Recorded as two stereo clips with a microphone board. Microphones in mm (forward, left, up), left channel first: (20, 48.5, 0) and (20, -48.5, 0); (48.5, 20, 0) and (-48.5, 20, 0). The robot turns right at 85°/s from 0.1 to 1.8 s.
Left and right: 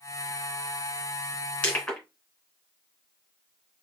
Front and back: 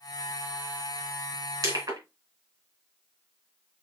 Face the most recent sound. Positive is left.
turn(degrees=175)